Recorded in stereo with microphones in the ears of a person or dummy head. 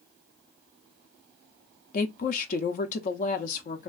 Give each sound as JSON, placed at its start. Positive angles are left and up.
{"t": 1.9, "sound": "a woman speaking", "side_deg": 50, "distance_m": 0.5}